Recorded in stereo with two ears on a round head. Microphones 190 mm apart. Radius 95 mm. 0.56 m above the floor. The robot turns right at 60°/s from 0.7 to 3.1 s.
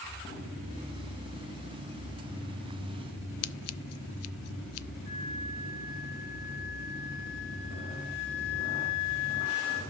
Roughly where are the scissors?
Left.